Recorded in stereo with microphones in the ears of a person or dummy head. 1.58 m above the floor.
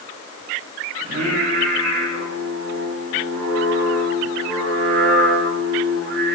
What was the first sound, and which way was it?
Singing, 80° right.